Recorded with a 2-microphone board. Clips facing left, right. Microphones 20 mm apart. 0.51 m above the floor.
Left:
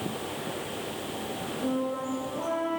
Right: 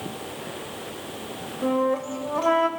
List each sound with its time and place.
1.6 s a flute: 80° right, 0.8 m